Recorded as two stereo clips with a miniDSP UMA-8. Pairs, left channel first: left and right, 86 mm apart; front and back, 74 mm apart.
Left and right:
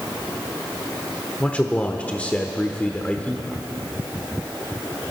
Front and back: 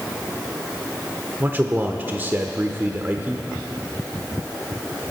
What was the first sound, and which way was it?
A man speaking, 150° left.